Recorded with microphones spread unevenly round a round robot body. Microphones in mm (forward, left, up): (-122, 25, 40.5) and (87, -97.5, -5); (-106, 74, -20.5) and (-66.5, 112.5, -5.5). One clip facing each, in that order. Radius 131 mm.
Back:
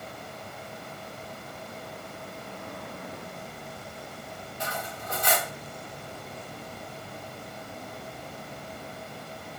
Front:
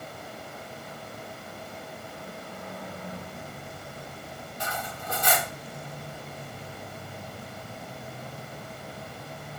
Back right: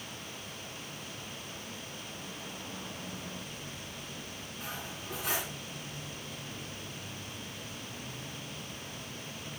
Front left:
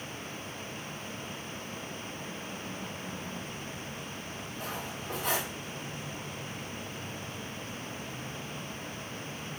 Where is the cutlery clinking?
35° right, 1.4 m.